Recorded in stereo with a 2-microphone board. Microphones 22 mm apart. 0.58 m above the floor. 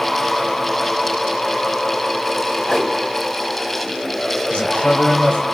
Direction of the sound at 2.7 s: 45° left (ahead or behind).